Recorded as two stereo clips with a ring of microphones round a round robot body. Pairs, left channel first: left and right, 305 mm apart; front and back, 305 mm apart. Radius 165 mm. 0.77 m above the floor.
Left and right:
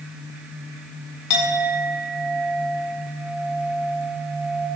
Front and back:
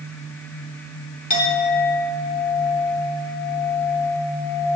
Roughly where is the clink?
Ahead left.